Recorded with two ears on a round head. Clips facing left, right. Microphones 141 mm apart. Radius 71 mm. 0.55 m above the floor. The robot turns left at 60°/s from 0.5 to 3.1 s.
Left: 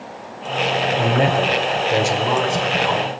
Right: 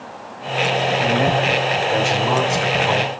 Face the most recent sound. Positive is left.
turn(degrees=-45)